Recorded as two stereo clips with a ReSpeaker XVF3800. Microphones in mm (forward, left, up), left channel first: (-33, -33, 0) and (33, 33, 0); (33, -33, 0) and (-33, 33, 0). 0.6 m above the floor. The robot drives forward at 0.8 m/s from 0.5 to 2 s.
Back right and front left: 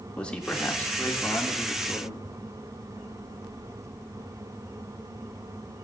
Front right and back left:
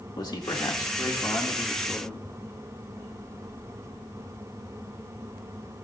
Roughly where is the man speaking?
Ahead right.